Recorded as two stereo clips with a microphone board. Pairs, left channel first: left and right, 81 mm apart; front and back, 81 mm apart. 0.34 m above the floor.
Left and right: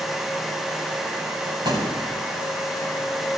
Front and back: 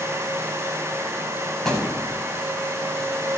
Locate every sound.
1.6 s a thud: 85° right, 7.5 m